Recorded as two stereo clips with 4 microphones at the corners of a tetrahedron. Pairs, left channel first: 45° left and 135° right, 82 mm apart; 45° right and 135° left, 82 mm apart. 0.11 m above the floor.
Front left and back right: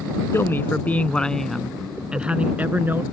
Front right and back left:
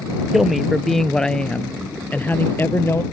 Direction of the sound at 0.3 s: 50° left.